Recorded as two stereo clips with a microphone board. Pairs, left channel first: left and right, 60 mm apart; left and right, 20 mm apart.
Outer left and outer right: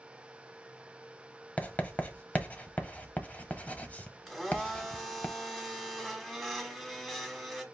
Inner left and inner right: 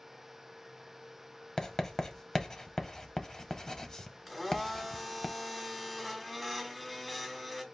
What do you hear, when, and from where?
1.6 s writing: 25° left (ahead or behind), 0.8 m
4.3 s a blender: centre (ahead or behind), 1.3 m